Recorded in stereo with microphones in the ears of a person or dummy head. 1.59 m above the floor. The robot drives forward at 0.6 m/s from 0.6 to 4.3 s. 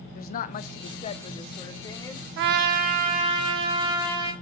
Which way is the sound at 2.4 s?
60° right (ahead or behind).